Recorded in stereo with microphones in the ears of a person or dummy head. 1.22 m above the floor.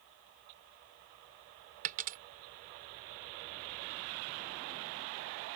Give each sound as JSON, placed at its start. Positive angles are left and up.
{"t": 1.8, "sound": "a dropped coin", "side_deg": -50}